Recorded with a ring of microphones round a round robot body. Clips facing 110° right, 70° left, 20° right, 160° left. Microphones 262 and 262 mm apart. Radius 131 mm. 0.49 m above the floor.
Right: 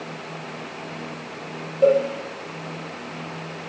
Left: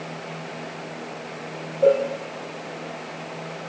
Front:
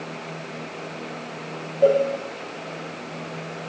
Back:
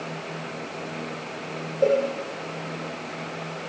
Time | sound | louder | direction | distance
1.8 | a cowbell | right 1 dB, front 3 dB | 110° right | 4 m